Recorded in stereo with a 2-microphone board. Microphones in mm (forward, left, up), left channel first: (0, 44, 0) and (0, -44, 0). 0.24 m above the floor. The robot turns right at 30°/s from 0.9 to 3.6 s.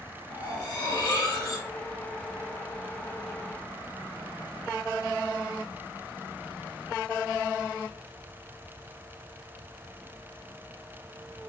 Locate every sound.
0.3 s cutlery clinking: 55° left (ahead or behind), 1.5 m; by 1.7 s 40° left (ahead or behind), 1.5 m